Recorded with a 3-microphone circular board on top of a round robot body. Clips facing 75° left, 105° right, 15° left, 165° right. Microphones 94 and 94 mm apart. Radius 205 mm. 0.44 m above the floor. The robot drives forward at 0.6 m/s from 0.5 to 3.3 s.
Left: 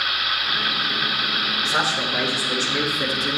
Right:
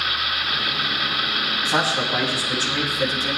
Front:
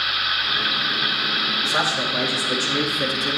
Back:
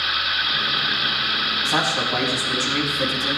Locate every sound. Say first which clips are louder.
1.6 s a man speaking: right 2 dB, back 2 dB; 150° right, 5 m; by 3.4 s 155° right, 6 m